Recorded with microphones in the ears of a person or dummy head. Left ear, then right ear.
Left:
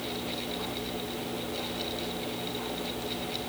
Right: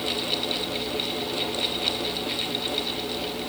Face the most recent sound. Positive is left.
No sound to turn to.